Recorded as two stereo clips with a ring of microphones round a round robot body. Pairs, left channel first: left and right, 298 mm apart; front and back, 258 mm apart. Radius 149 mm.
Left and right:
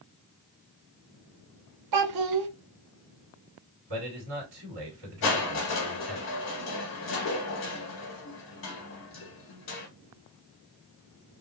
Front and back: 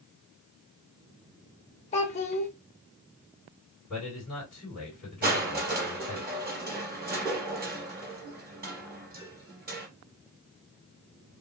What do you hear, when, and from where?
1.9 s a child speaking: 70° right, 0.8 m
3.9 s a man speaking: 90° right, 2 m
5.2 s crushing: 130° left, 1.6 m